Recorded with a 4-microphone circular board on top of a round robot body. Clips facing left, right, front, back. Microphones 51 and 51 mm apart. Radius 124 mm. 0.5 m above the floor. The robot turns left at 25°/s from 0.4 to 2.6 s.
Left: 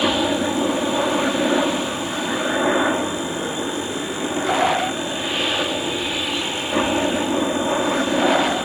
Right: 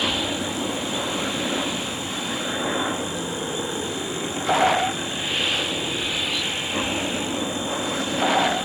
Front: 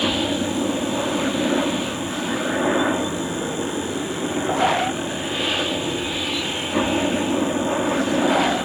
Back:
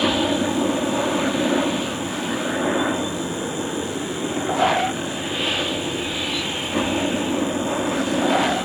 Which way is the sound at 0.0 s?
125° left.